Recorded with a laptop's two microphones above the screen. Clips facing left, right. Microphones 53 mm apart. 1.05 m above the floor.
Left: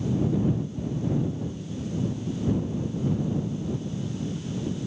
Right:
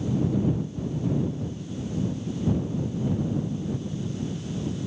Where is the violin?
I don't hear a violin.